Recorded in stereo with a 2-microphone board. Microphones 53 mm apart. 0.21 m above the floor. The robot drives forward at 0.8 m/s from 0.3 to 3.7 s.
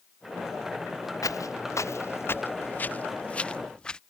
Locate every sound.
1.2 s footsteps: 80° left; by 4.0 s 15° left (ahead or behind)